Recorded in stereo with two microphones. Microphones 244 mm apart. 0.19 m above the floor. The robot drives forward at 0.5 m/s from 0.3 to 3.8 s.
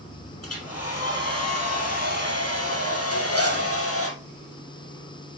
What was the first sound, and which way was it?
A hair dryer, 70° left (ahead or behind).